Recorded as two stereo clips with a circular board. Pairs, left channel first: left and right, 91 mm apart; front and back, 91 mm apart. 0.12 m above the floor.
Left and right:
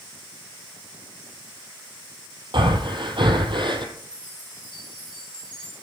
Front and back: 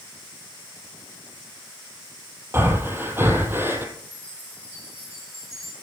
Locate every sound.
2.5 s breathing: 115° right, 1.8 m
4.0 s a chime: 125° right, 6.5 m